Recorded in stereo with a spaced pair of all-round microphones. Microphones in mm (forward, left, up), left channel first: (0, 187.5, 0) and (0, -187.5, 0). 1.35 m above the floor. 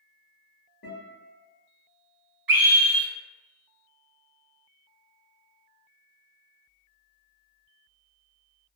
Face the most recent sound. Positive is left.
turn(degrees=-60)  # may be behind; listen again after turning